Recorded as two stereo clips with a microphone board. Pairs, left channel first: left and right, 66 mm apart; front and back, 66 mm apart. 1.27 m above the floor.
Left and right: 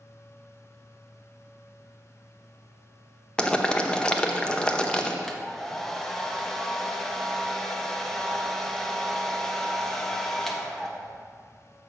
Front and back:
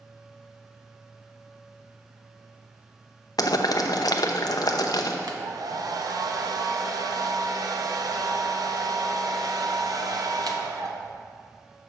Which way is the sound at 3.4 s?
15° left.